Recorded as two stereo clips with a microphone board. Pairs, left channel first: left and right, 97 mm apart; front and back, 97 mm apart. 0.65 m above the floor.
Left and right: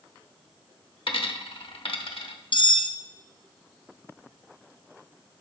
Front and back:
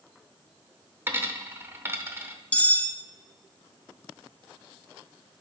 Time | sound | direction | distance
1.1 | a dropped coin | 115° left | 0.8 m
2.5 | cutlery clinking | 75° left | 0.5 m